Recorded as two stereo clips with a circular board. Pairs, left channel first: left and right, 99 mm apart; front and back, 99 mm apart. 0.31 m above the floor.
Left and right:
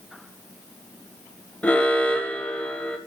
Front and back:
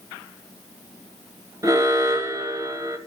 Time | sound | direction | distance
1.6 | an alarm | 160° left | 1.6 m